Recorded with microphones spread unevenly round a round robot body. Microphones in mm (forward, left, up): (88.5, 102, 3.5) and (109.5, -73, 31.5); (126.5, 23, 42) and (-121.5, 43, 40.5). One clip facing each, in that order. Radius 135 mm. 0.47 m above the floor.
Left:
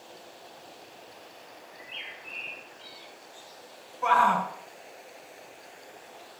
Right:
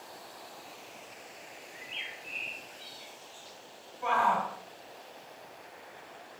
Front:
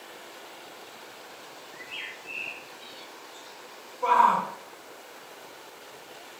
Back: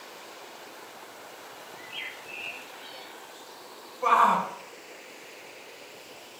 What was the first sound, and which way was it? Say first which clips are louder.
A bird: left 1 dB, even; 40° right.